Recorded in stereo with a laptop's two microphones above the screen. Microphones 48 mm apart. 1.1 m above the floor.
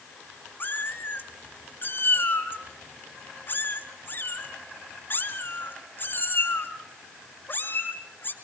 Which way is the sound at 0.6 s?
45° left (ahead or behind).